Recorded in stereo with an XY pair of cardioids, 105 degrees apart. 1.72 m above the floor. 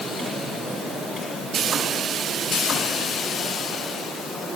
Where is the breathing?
I don't hear breathing.